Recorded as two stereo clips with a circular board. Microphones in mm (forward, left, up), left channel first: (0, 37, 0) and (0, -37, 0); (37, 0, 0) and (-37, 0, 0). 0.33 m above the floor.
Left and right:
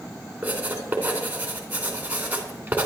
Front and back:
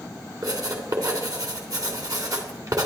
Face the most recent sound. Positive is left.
turn(degrees=-155)